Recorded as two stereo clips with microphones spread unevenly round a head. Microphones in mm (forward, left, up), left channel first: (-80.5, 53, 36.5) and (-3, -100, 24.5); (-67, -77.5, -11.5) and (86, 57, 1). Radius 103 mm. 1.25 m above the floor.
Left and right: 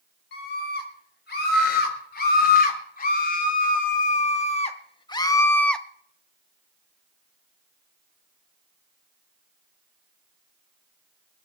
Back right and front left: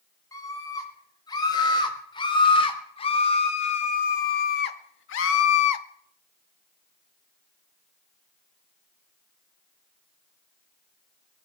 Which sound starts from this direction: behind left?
A scream, at 0.3 s.